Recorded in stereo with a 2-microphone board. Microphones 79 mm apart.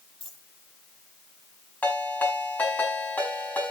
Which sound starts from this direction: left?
A ringtone, at 1.8 s.